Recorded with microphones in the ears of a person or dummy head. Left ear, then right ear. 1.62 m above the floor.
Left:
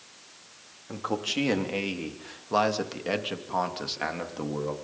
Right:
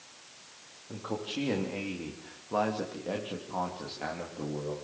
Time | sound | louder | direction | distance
0.9 | a man speaking | left 6 dB | 65° left (ahead or behind) | 3.5 m